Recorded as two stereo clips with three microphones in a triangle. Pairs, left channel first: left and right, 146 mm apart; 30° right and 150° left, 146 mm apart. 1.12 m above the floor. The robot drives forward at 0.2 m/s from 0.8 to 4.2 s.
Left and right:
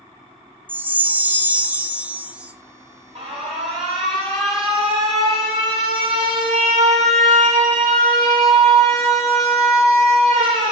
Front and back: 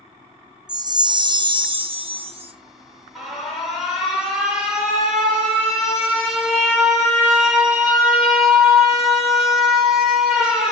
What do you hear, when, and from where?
0.7 s a chime: 160° right, 0.5 m; by 2.5 s 170° right, 0.8 m
3.1 s an alarm: 120° right, 3 m; by 10.7 s 125° right, 3 m